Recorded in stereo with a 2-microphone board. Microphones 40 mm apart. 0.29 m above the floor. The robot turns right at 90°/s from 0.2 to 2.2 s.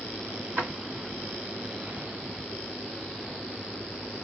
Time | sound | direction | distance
0.6 | a drawer | 45° right (ahead or behind) | 1.5 m